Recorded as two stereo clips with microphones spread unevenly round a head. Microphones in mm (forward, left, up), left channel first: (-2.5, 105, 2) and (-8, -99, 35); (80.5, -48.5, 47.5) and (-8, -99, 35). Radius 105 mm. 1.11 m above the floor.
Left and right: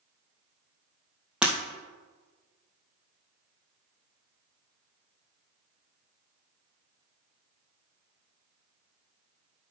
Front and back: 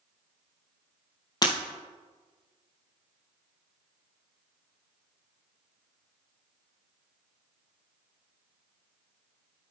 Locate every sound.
1.4 s breaking glass: 10° right, 2.5 m